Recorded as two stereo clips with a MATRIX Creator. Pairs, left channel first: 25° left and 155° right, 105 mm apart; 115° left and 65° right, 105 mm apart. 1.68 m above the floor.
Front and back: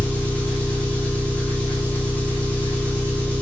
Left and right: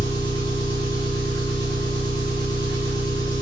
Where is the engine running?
90° left, 1.2 m.